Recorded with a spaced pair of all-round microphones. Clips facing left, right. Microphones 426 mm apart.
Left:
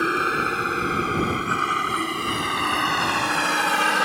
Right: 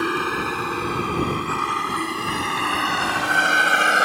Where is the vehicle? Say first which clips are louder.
Right 1 dB; 10° right (ahead or behind); by 4.1 s 10° left (ahead or behind).